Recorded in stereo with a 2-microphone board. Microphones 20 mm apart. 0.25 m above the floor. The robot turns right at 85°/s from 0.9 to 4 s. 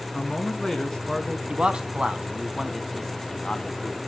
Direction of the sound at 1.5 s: 45° right (ahead or behind).